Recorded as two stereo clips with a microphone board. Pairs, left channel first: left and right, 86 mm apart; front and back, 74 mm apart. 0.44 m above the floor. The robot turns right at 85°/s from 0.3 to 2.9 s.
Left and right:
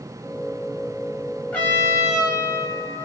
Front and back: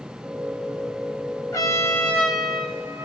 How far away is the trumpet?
About 1.3 m.